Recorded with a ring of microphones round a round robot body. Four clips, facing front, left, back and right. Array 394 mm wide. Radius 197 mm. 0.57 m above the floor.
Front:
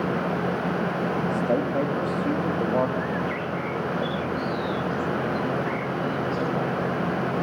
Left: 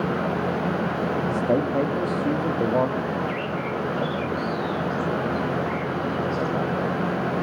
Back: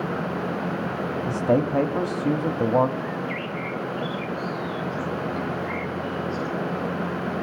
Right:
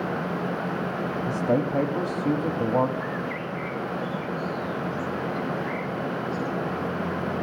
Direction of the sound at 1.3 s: Straight behind.